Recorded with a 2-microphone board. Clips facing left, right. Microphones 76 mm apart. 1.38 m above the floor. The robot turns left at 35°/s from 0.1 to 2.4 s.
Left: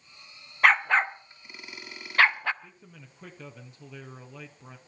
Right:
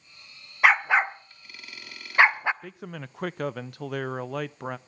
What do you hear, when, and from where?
0.6 s a dog barking: 5° right (ahead or behind), 0.7 m; by 2.5 s 20° right (ahead or behind), 0.7 m
2.6 s a man speaking: 75° right (ahead or behind), 0.7 m